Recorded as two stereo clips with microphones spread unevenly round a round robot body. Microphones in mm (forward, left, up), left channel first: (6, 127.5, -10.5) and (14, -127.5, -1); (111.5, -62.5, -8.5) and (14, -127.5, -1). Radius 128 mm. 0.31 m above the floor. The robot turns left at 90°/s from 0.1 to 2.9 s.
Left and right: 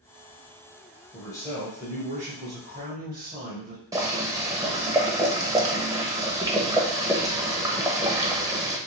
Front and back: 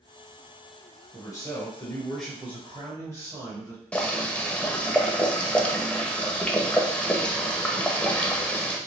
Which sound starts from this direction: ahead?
Boiling, at 3.9 s.